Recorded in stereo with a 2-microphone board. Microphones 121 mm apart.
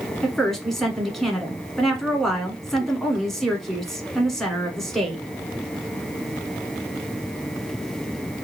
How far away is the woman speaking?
About 1.1 m.